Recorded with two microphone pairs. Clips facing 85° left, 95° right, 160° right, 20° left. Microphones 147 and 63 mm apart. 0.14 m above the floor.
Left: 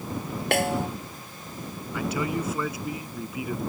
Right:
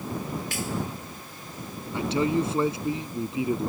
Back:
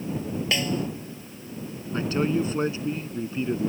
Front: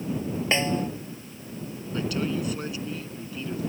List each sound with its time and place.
0.5 s a snare drum: 80° left
1.9 s a man speaking: 135° right